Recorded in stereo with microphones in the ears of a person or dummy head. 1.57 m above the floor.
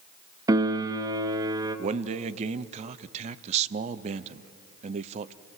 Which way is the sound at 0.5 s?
20° right (ahead or behind).